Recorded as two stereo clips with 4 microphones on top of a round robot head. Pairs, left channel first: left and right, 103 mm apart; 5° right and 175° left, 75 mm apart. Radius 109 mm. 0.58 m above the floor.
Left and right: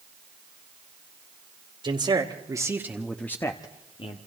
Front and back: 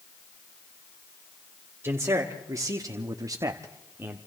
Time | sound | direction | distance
1.8 | a man speaking | 125° right | 2.5 m